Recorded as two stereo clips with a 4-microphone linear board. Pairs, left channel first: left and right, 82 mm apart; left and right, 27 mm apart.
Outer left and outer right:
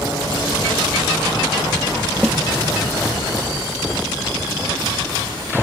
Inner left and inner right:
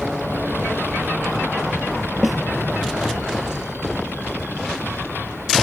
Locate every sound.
2.2 s a snare drum: 5° right (ahead or behind)